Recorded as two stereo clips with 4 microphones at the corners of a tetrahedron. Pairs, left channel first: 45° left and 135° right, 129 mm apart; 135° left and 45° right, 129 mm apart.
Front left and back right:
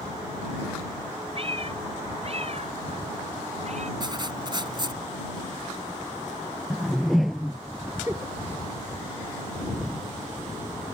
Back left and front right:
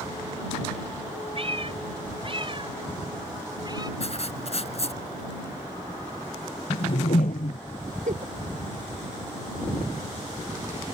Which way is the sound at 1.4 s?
90° right.